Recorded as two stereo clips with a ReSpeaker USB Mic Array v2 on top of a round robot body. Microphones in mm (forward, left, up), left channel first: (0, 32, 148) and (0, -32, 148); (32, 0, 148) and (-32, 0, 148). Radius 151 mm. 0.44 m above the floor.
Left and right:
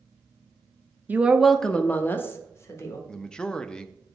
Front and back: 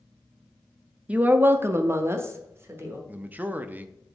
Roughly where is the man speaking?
Behind.